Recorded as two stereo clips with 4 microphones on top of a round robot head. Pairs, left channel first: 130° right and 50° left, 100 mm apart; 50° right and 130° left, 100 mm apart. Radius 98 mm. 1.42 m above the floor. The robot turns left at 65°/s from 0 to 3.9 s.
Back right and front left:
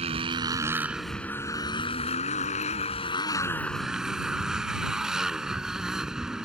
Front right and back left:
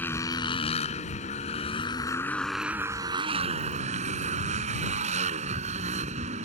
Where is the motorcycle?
25° left; by 6.5 s 130° left.